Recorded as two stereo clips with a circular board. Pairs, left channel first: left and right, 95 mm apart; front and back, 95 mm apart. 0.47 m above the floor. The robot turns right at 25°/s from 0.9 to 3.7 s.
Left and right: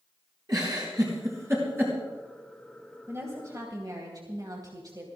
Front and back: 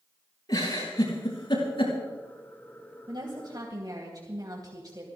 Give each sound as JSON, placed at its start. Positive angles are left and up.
{"t": 0.5, "sound": "a giggle", "azimuth_deg": -45, "distance_m": 6.0}
{"t": 3.1, "sound": "a woman speaking", "azimuth_deg": -150, "distance_m": 3.0}